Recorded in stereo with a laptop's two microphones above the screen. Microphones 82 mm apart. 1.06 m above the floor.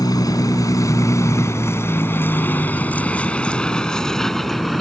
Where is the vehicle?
50° left (ahead or behind); by 4.8 s centre (ahead or behind).